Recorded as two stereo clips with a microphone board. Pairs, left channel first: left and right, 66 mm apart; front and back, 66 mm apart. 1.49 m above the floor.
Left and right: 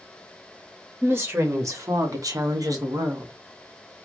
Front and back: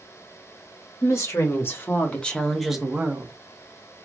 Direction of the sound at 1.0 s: 40° right.